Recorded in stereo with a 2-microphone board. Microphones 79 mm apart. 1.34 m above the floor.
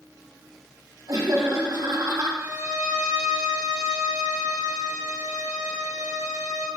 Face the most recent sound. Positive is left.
turn(degrees=-50)  # may be behind; listen again after turning